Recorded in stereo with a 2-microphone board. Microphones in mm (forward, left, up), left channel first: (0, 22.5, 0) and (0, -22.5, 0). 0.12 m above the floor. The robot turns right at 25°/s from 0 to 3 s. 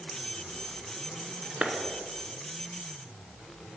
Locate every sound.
1.6 s a clap: 30° right (ahead or behind), 0.9 m